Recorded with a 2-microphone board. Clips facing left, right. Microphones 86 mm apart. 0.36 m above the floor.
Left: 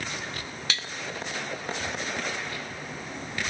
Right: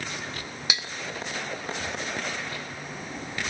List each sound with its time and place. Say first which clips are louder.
0.7 s dishes clattering: right 1 dB; 15° right (ahead or behind), 0.6 m